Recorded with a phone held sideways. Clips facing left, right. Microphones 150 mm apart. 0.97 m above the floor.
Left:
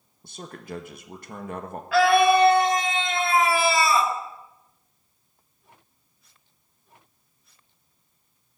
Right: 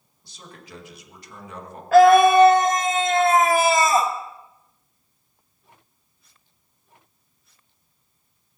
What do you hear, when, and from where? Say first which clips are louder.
0.2 s a man speaking: left 7 dB; 55° left (ahead or behind), 1.4 m
1.9 s a scream: right 6 dB; 45° right (ahead or behind), 1.5 m